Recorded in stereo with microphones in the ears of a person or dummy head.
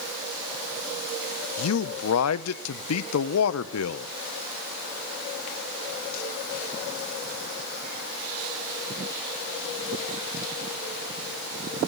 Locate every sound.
1.6 s a man speaking: 85° left, 0.7 m